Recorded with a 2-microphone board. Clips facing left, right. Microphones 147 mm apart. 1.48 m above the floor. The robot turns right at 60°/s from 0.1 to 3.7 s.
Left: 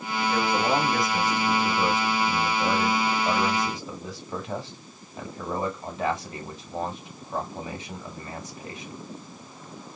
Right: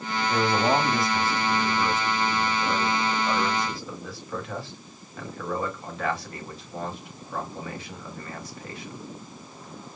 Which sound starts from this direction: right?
A man speaking, at 0.3 s.